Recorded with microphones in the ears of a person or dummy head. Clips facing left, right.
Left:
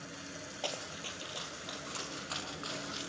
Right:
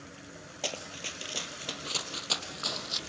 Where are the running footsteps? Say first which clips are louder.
Right 3 dB; 25° right (ahead or behind), 2.5 m; by 3.0 s 65° right (ahead or behind), 4 m.